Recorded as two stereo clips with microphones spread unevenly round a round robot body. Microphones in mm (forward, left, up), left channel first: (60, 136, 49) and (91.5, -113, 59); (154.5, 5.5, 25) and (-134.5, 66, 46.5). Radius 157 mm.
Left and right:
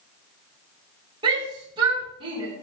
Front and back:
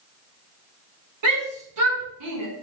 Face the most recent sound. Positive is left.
turn(degrees=-155)